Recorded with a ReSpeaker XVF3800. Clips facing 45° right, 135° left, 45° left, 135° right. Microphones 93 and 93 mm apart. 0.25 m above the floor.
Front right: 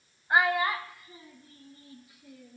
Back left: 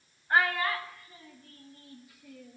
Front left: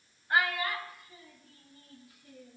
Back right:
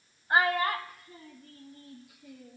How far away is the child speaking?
About 0.6 m.